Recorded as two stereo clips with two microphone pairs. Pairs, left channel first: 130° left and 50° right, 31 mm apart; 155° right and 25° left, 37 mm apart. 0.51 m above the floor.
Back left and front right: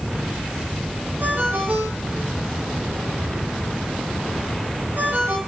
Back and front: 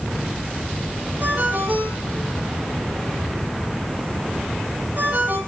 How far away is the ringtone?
About 7.5 m.